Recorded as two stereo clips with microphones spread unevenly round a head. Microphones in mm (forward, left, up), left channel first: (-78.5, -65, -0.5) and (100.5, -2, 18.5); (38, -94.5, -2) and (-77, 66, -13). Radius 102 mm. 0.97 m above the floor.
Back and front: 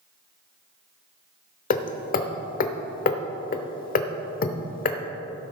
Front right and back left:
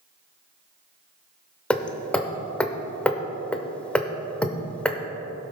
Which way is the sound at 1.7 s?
135° right.